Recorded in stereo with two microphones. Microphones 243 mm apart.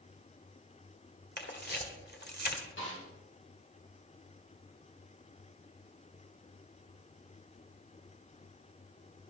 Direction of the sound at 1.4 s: 45° left (ahead or behind).